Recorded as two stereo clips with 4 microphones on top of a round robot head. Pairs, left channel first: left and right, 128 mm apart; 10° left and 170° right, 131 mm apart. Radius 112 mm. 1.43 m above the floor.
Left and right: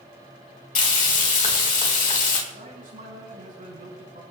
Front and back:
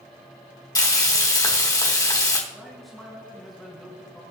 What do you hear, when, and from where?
0.8 s frying: 70° left, 3 m
2.5 s a man speaking: 80° right, 5.5 m